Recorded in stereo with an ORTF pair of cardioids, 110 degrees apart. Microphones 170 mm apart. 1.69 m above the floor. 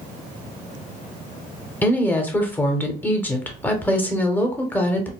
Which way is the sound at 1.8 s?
10° left.